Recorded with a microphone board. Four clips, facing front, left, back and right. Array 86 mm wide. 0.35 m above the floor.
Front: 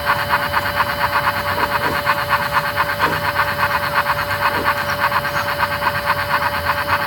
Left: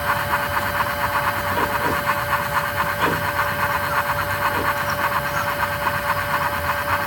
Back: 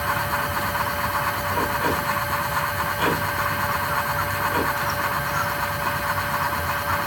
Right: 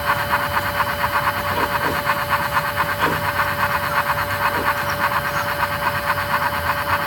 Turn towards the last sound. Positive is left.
No sound to turn to.